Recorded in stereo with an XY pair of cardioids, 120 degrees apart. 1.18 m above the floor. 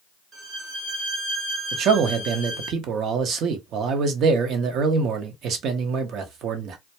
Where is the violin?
40° right, 0.7 m.